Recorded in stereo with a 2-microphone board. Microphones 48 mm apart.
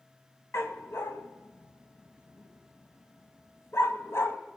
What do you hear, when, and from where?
0.5 s a dog barking: 70° left (ahead or behind), 1.9 m